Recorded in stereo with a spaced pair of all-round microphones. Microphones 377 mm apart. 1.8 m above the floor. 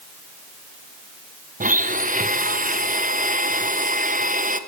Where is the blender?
25° right (ahead or behind), 0.5 m.